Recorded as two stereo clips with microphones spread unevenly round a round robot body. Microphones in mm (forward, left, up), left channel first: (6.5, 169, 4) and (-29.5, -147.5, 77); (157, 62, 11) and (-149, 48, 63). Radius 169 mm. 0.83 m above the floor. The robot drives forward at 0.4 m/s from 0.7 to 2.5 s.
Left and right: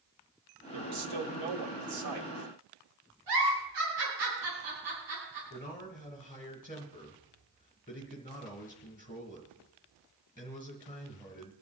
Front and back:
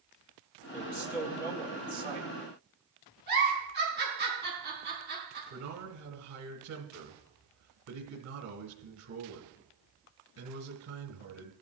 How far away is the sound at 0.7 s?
About 2.0 m.